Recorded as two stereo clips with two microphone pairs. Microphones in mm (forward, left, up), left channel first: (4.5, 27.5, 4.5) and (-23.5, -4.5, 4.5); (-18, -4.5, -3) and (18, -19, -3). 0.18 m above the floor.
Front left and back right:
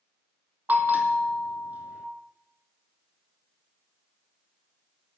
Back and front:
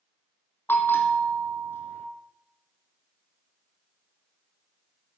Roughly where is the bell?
Behind.